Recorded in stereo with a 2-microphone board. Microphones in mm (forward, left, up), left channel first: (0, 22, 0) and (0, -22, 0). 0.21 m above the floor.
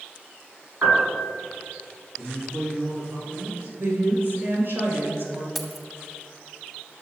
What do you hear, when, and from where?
0.8 s a piano: 35° right (ahead or behind), 3 m
2.2 s a man speaking: 55° right (ahead or behind), 2.5 m
3.8 s a woman speaking: 55° right (ahead or behind), 3 m
5.5 s keys jangling: centre (ahead or behind), 0.8 m